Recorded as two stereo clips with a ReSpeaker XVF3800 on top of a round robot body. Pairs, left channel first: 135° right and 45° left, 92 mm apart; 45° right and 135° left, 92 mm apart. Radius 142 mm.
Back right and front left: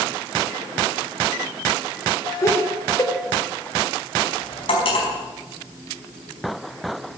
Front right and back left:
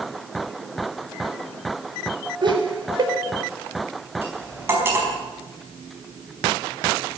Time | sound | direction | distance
2.4 | laughter | 170° left | 4 m
4.2 | cutlery clinking | 160° right | 4.5 m